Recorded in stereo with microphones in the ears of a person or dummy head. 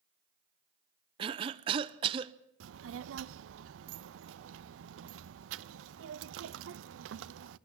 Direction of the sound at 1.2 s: 30° right (ahead or behind).